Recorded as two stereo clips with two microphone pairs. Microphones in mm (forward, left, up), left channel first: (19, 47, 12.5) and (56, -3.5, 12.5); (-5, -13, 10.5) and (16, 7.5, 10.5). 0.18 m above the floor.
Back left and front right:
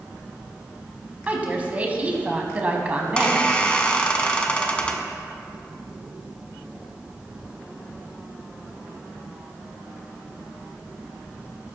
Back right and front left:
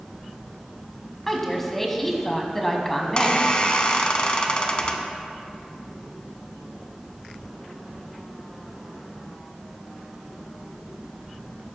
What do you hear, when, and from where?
1.3 s a woman speaking: 65° right, 1.0 m
3.0 s a squeak: 170° right, 0.8 m